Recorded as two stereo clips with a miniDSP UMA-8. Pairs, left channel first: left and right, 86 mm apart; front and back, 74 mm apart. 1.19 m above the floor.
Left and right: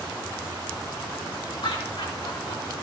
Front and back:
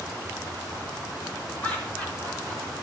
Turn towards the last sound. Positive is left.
turn(degrees=80)